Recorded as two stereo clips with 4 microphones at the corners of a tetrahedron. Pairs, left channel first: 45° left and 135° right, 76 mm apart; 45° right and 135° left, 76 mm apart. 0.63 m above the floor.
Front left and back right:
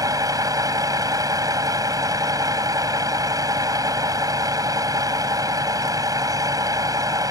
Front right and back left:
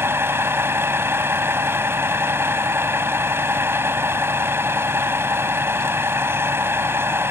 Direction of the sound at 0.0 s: 170° right.